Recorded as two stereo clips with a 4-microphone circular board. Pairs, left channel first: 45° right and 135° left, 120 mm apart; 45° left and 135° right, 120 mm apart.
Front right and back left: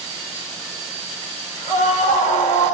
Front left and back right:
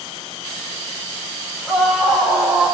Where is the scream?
45° right, 8.5 m; by 2.7 s 50° right, 7.5 m.